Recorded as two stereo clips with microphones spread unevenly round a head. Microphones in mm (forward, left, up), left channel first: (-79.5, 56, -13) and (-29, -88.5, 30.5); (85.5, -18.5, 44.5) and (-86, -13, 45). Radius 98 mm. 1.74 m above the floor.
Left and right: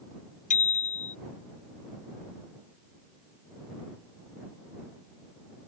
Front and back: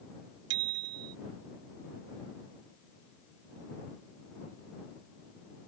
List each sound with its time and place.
0.5 s a bicycle bell: 150° left